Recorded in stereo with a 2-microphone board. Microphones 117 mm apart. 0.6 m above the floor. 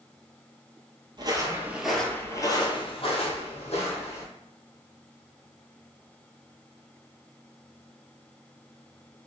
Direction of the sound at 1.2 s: 40° right (ahead or behind).